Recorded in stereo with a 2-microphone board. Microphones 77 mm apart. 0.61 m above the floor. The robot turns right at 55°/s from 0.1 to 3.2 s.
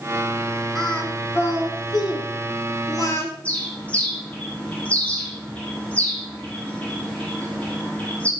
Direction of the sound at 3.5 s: 20° left (ahead or behind).